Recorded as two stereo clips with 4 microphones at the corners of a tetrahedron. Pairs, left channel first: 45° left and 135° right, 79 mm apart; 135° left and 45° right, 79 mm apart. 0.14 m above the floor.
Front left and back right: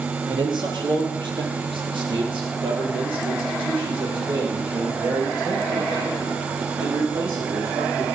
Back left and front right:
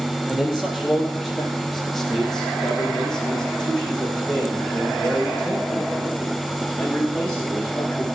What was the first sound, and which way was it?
A man speaking, 125° right.